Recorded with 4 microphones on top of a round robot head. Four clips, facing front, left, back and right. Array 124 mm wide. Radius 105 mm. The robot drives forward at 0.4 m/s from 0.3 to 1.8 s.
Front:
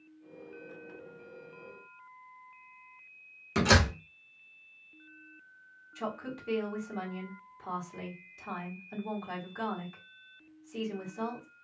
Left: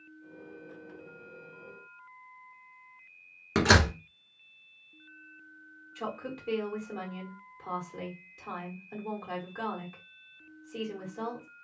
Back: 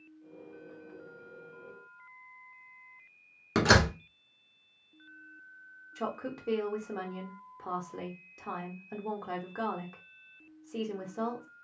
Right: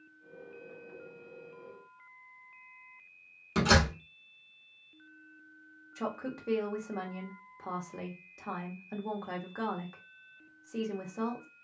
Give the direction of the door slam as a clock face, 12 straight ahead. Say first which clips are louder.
Left 3 dB, back 2 dB; 7 o'clock.